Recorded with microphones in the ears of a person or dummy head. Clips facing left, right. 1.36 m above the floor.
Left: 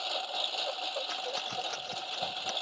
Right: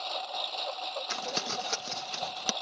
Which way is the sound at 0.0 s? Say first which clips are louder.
Even; 10° left (ahead or behind).